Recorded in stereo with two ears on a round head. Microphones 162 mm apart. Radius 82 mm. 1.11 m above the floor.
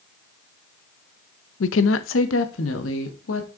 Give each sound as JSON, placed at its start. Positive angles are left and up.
{"t": 1.6, "sound": "a woman speaking", "side_deg": 75, "distance_m": 0.6}